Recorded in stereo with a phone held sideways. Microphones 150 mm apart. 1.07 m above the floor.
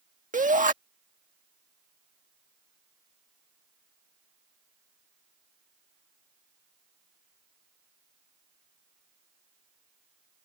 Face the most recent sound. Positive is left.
turn(degrees=-60)  # may be behind; listen again after turning